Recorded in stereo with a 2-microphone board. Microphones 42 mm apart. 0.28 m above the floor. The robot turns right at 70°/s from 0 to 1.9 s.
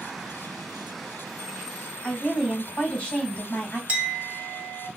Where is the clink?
35° right (ahead or behind), 1.0 m.